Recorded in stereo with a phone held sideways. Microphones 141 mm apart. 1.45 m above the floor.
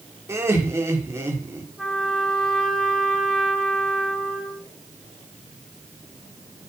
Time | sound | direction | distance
0.3 | laughter | 20° right (ahead or behind) | 5.5 m
1.8 | a trumpet | 5° left (ahead or behind) | 4 m